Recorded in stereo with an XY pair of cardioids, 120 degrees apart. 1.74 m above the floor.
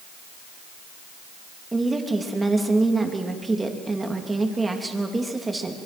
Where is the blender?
I don't hear a blender.